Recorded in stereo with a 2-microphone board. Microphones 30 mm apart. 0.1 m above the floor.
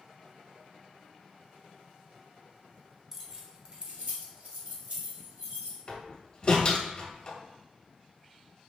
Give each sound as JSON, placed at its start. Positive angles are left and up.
{"t": 3.1, "sound": "keys jangling", "side_deg": -5, "distance_m": 1.0}
{"t": 5.9, "sound": "a door slam", "side_deg": 30, "distance_m": 1.4}